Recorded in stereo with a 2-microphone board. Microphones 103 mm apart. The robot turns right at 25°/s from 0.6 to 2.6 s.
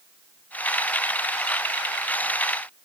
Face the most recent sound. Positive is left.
No sound to turn to.